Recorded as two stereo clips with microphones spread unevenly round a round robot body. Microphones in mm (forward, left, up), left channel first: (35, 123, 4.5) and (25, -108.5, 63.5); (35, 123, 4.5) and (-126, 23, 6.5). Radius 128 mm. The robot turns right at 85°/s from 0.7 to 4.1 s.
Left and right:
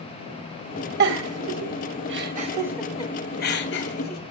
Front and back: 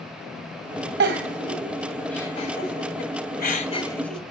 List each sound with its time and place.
1.0 s a giggle: 145° right, 1.9 m; by 4.3 s 115° left, 1.9 m